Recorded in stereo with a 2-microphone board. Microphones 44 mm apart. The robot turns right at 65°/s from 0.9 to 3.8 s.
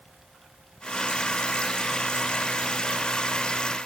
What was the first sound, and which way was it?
Only background noise.